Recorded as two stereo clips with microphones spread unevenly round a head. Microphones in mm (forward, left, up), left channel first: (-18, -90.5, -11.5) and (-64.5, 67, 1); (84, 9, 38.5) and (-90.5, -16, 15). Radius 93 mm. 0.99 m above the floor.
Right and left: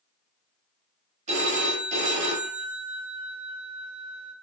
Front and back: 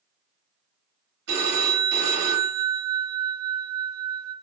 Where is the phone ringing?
155° left, 1.0 m.